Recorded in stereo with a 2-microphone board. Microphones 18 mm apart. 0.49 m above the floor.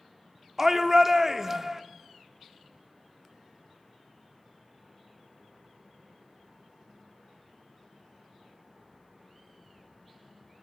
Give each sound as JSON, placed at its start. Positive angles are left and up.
{"t": 0.6, "sound": "a shout", "side_deg": -20, "distance_m": 0.7}